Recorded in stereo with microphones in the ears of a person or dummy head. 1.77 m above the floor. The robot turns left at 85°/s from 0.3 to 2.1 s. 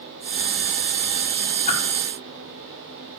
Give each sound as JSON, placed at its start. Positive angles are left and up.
{"t": 1.7, "sound": "a whoosh", "side_deg": 35, "distance_m": 1.2}